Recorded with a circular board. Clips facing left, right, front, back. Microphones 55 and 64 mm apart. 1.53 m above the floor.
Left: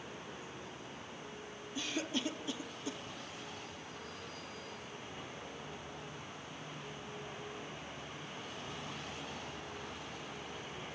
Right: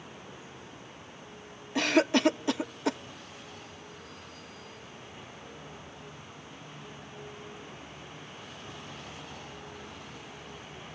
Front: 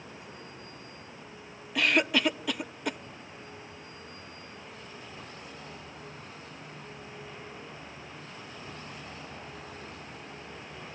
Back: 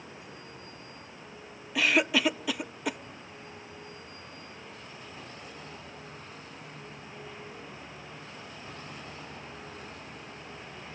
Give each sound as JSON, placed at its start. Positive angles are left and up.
{"t": 1.8, "sound": "a cough", "azimuth_deg": -95, "distance_m": 0.6}